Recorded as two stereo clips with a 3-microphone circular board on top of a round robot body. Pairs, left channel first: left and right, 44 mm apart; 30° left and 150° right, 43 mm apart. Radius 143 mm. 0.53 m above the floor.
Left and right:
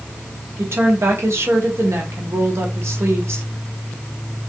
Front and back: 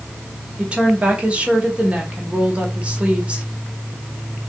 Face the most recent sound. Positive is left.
turn(degrees=-85)